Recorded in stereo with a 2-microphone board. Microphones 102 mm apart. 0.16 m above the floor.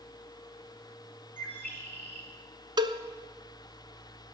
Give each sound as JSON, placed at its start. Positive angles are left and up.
{"t": 1.4, "sound": "a bird", "side_deg": 20, "distance_m": 3.5}
{"t": 2.8, "sound": "a cowbell", "side_deg": -50, "distance_m": 0.7}